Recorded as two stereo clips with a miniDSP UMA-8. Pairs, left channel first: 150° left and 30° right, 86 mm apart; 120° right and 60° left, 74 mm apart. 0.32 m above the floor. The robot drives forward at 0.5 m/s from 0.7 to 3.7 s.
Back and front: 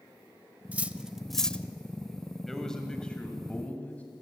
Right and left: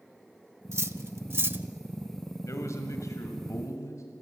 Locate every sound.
0.7 s cutlery clinking: 35° left, 0.7 m; by 1.6 s 95° left, 0.6 m
2.5 s a man speaking: 125° right, 1.6 m; by 4.0 s 140° right, 2.0 m